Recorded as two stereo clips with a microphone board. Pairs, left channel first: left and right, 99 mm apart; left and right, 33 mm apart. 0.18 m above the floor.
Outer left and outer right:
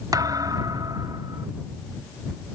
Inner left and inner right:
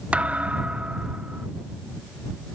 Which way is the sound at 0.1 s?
40° right (ahead or behind).